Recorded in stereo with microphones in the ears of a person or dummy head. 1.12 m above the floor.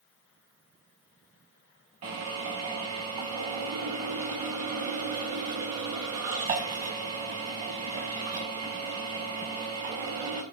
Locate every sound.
2.0 s a drill: 35° right (ahead or behind), 5 m